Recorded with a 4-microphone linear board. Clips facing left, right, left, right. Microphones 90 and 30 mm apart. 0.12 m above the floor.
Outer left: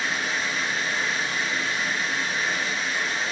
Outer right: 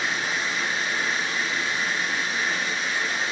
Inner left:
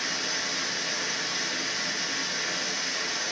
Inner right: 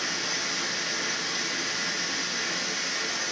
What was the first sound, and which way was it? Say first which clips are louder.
Running water: even, even; 30° right (ahead or behind).